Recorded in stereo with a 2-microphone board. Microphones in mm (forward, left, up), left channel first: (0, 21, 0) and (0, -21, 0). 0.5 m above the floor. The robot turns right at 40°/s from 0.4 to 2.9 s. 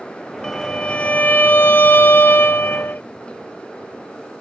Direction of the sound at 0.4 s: 20° left.